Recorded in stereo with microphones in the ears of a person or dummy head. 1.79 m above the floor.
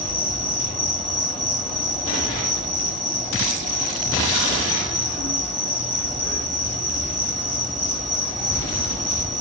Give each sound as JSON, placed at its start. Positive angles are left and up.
{"t": 0.0, "sound": "an insect", "side_deg": 0, "distance_m": 1.3}